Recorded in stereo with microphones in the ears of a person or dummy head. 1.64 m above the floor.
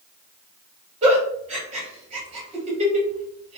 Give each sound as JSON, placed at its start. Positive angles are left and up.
{"t": 1.0, "sound": "a giggle", "side_deg": -45, "distance_m": 2.0}